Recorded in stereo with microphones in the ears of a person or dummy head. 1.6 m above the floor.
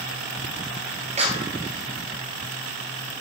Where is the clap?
35° right (ahead or behind), 3.5 m.